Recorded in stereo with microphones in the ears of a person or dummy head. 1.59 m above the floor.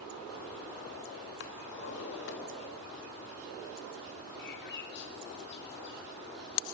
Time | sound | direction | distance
1.4 | a drawer | 70° left (ahead or behind) | 3 m
4.4 | a bird | 65° left (ahead or behind) | 3.5 m